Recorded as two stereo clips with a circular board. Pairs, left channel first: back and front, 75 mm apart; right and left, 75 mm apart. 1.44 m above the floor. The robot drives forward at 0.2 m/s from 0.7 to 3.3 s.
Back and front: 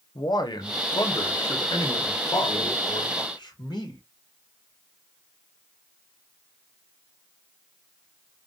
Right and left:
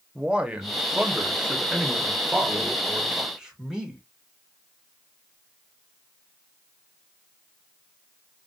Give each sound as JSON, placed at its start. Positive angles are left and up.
{"t": 0.1, "sound": "a man speaking", "azimuth_deg": 165, "distance_m": 0.9}